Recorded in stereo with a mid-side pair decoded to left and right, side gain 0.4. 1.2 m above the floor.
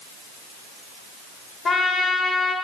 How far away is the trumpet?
About 2 m.